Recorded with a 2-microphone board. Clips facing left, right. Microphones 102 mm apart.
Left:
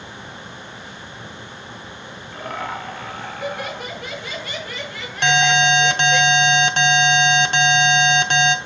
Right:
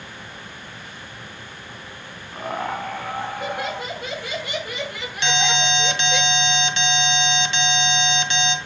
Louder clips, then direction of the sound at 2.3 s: Right 2 dB; 25° right (ahead or behind).